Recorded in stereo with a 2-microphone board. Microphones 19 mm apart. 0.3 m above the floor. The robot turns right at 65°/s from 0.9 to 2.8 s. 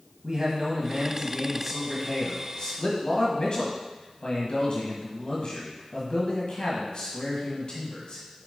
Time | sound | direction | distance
0.2 | a man speaking | 55° right | 1.5 m